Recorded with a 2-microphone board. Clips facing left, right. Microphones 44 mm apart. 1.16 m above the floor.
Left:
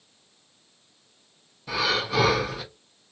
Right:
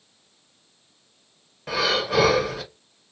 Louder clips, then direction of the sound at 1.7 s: Right 2 dB; 50° right (ahead or behind).